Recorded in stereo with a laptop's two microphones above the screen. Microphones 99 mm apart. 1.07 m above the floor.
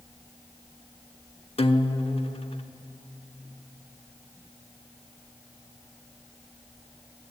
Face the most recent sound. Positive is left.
turn(degrees=65)  # may be behind; listen again after turning